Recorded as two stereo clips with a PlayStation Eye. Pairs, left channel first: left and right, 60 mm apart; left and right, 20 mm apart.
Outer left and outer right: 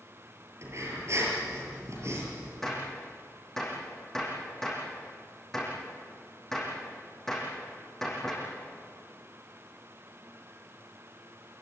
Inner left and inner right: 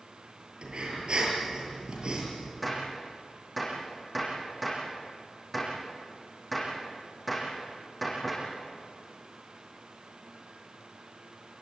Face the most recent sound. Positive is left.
turn(degrees=5)  # may be behind; listen again after turning